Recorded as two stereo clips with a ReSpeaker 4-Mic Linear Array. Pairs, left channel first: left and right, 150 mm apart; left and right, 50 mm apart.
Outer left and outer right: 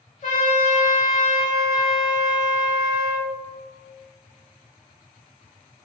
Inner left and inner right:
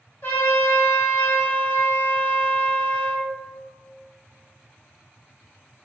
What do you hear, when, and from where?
0.2 s a trumpet: 50° left (ahead or behind), 0.9 m